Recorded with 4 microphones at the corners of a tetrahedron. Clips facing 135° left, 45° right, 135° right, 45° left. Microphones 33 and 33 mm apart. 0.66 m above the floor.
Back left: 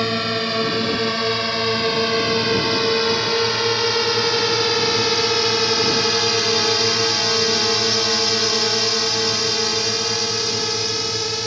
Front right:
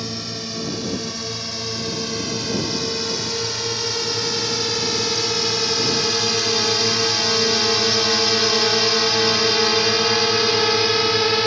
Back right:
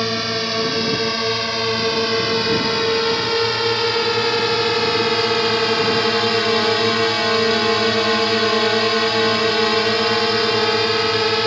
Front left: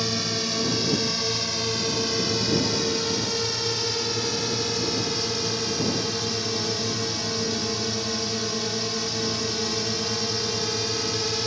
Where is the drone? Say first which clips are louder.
Back left 9 dB, back right 6 dB; 170° left; by 11.5 s 100° right.